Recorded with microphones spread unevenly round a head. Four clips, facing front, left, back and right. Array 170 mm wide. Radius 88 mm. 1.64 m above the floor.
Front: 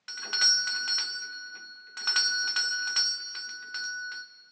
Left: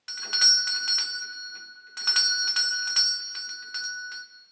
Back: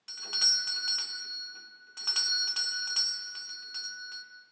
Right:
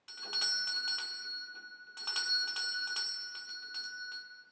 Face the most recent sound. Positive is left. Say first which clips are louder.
# left 10 dB, front 9 dB
turn(degrees=65)